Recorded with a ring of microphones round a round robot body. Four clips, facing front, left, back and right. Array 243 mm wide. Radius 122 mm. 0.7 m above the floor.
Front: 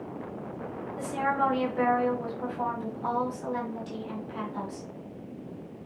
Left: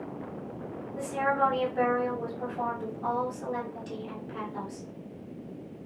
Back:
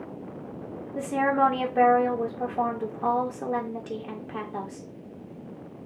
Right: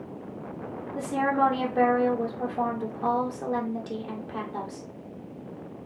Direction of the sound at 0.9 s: 150° right.